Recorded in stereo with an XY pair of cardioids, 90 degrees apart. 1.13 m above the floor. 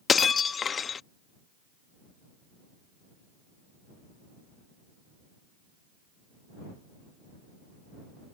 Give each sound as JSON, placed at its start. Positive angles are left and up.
{"t": 0.1, "sound": "breaking glass", "azimuth_deg": 50}